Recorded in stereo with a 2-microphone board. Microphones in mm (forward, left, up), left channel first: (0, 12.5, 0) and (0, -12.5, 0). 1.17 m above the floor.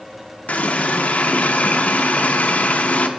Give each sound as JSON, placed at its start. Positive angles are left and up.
{"t": 0.5, "sound": "a running tap", "side_deg": 70, "distance_m": 0.6}